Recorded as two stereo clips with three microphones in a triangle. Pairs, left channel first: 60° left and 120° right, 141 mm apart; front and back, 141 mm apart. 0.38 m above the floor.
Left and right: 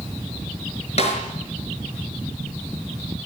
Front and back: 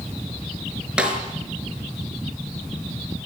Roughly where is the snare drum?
Left.